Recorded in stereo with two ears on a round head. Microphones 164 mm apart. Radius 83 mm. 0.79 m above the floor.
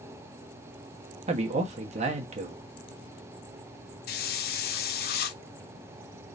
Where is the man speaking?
40° right (ahead or behind), 1.1 m.